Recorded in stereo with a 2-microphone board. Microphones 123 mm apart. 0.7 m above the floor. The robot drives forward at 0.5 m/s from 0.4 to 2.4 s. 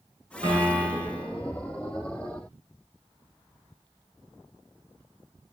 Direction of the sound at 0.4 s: 65° right (ahead or behind).